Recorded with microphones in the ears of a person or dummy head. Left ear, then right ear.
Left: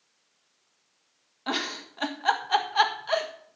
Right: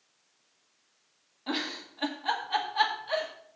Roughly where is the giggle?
Left.